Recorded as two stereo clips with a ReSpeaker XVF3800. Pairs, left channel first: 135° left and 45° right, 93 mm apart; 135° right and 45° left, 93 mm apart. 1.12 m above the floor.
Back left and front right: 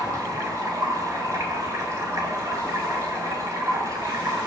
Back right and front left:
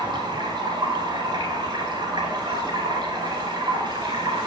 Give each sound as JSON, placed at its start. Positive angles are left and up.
{"t": 0.0, "sound": "running water", "azimuth_deg": 10, "distance_m": 3.0}